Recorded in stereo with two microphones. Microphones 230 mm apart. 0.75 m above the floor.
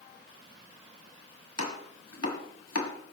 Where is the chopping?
85° left, 2 m.